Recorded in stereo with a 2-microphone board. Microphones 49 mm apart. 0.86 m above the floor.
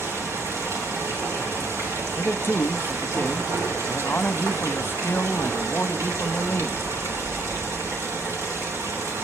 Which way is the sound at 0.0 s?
65° right (ahead or behind).